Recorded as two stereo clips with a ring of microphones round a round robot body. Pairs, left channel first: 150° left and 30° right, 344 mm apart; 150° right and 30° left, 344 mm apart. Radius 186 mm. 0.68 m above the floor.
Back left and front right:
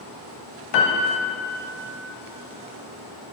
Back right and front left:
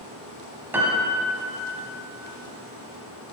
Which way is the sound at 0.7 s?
115° left.